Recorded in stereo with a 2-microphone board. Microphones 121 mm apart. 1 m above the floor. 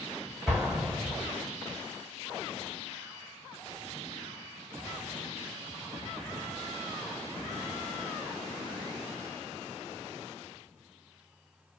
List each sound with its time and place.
0.5 s an explosion: 10° right (ahead or behind), 1.1 m